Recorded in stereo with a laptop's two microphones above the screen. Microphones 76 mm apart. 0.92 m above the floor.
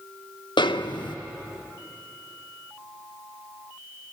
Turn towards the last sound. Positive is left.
turn(degrees=85)